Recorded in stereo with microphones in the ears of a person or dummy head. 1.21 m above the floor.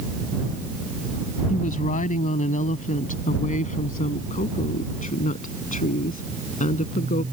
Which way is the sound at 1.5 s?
45° left (ahead or behind).